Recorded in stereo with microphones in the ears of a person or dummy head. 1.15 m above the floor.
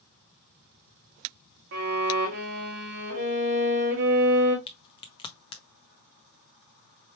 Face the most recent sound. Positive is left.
turn(degrees=20)  # may be behind; listen again after turning